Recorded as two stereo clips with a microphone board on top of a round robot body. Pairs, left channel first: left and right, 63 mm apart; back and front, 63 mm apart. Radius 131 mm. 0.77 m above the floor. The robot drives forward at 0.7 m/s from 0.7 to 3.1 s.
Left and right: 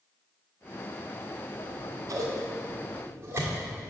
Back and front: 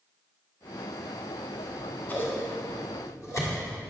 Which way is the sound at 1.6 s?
100° right.